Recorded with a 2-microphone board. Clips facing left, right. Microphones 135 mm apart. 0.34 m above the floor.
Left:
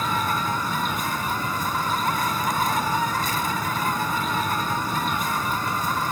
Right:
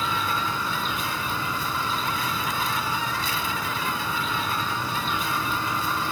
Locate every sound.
0.0 s an insect: 45° left (ahead or behind)